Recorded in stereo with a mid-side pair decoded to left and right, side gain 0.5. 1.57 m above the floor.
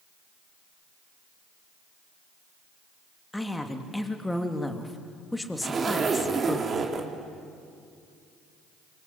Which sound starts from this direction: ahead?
A woman speaking, at 3.3 s.